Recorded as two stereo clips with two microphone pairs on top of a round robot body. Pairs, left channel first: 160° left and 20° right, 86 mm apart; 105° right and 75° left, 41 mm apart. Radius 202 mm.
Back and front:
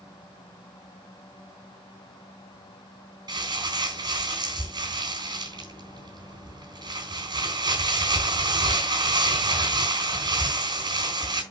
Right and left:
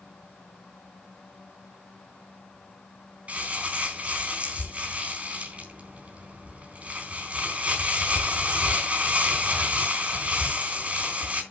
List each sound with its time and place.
3.3 s crumpling: 15° left, 3.5 m